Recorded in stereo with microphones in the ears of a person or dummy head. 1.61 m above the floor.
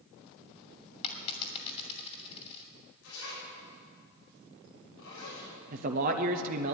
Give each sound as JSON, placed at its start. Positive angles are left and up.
{"t": 1.0, "sound": "a dropped coin", "side_deg": 35, "distance_m": 2.0}
{"t": 3.0, "sound": "a zipper", "side_deg": 85, "distance_m": 7.5}
{"t": 5.7, "sound": "a man speaking", "side_deg": -50, "distance_m": 0.8}